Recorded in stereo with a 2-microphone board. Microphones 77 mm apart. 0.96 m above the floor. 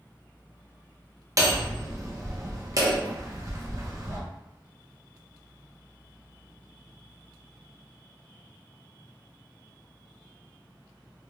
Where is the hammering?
45° right (ahead or behind), 0.7 m.